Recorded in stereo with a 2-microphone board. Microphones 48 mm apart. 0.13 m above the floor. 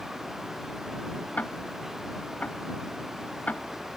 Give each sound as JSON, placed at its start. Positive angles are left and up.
{"t": 1.4, "sound": "ticking", "side_deg": 30}